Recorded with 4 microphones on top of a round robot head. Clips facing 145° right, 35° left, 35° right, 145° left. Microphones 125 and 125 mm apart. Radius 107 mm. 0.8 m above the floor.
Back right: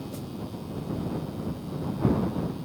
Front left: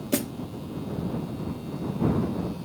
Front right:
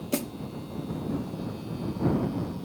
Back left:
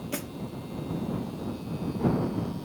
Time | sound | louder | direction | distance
0.1 | a snare drum | front left 10 dB, front right 8 dB | 25° left | ?